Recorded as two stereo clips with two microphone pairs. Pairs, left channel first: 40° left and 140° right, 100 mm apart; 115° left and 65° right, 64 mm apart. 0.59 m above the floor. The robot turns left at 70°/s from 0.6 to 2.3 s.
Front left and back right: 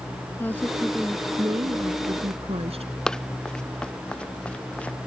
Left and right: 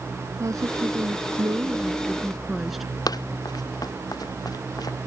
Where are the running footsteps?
125° left; by 5.0 s 120° left.